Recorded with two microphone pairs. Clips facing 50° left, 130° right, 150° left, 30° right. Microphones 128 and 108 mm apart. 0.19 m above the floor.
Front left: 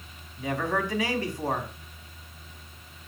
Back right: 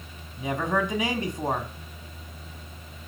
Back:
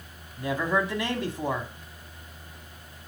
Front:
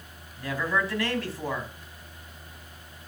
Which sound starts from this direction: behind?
A man speaking, at 0.4 s.